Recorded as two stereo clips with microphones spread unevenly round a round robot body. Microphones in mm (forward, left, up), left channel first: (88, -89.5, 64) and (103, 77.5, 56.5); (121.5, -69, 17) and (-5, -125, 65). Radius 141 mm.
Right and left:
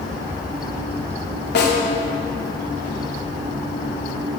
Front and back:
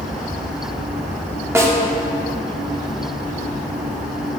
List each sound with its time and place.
1.6 s a snare drum: 80° right, 2.5 m